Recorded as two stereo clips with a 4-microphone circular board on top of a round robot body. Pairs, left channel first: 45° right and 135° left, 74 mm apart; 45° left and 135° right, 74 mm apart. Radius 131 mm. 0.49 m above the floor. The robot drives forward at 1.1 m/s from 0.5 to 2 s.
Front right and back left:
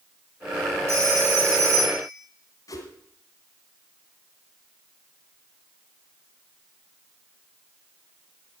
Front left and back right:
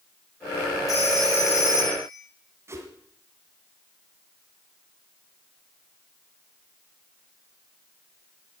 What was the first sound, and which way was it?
A phone ringing, 85° left.